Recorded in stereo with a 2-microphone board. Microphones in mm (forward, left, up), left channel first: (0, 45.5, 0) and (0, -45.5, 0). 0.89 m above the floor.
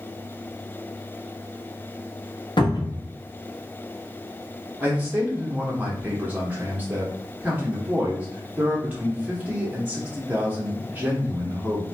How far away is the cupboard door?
About 0.9 m.